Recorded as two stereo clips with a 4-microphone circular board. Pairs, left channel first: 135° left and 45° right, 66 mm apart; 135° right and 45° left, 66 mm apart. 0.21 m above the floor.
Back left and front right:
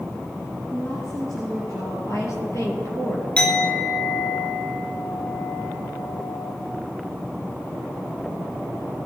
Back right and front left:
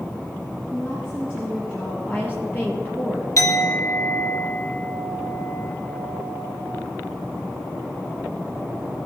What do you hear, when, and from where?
0.7 s a woman speaking: 170° left, 6 m
2.0 s a woman speaking: 170° left, 5 m
3.4 s a clink: 155° right, 2 m